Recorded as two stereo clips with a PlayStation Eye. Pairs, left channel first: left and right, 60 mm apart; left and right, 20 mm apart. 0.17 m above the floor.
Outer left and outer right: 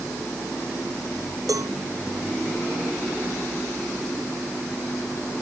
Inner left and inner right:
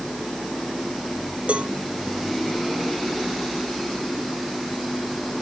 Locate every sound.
1.5 s a cowbell: 75° right (ahead or behind)